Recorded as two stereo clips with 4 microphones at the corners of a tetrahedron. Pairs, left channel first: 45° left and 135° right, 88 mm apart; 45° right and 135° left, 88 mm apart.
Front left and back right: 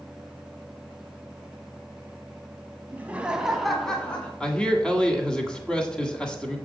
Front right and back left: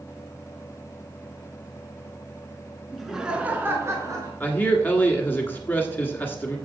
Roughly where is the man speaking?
Ahead.